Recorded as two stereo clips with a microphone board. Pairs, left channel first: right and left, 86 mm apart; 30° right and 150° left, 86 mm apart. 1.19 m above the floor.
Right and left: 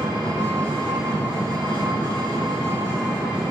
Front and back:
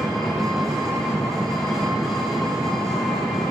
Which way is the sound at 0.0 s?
60° left.